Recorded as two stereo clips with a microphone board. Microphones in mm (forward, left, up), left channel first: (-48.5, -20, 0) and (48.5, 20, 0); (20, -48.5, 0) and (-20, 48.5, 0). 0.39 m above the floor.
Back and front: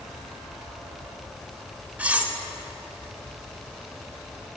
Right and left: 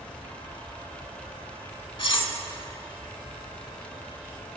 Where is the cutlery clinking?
50° right, 0.6 m.